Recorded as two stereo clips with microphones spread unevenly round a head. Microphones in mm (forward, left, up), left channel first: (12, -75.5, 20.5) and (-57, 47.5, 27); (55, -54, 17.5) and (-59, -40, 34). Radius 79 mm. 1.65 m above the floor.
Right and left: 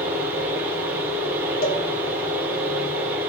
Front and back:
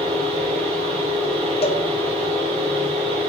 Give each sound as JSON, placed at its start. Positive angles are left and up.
{"t": 0.0, "sound": "a fan", "azimuth_deg": -170, "distance_m": 2.5}
{"t": 1.6, "sound": "a cowbell", "azimuth_deg": -35, "distance_m": 0.7}